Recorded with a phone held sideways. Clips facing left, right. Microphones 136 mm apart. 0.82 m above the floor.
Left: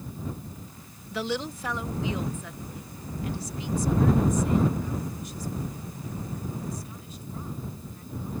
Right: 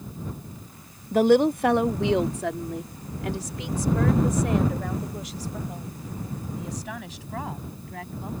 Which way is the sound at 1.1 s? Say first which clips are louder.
Right 13 dB; 40° right (ahead or behind).